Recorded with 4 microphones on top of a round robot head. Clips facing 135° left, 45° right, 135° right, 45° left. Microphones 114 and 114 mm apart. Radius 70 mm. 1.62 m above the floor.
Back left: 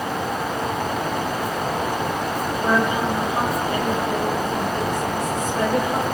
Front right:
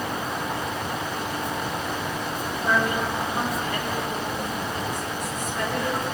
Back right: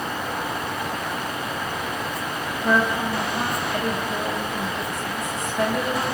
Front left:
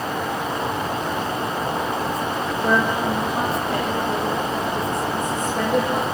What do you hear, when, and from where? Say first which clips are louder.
2.6 s a woman speaking: back left 3 dB, front left 1 dB; 70° left, 4.5 m